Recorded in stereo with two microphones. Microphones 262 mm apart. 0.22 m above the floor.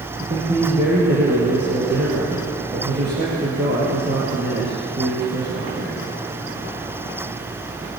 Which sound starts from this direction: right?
A man speaking, at 0.2 s.